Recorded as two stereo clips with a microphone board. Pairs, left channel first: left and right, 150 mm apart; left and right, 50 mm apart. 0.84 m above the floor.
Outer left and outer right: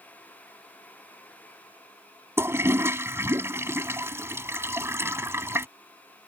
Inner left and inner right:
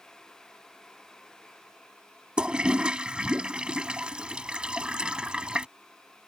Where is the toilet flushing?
20° right (ahead or behind).